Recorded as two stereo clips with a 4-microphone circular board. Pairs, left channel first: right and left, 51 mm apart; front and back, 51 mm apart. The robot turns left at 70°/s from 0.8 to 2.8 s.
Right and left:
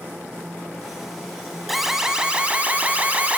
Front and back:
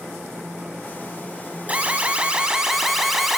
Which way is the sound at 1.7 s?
Straight behind.